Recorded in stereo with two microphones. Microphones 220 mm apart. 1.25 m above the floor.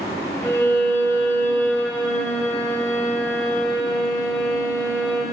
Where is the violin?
10° left (ahead or behind), 3 m.